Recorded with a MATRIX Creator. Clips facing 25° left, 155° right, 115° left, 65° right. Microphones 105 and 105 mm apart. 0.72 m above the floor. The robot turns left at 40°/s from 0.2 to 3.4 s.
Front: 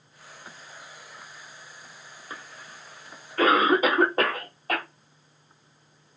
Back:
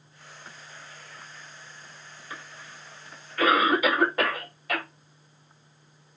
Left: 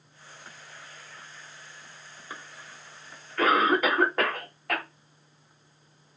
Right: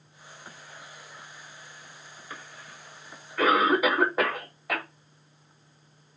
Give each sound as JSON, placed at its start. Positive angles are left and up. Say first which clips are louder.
{"t": 2.3, "sound": "a cough", "louder": "even, left 1 dB", "azimuth_deg": 55, "distance_m": 1.2}